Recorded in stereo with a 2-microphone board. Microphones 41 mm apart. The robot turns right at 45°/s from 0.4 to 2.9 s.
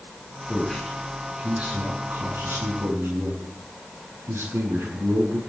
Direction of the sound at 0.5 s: 160° left.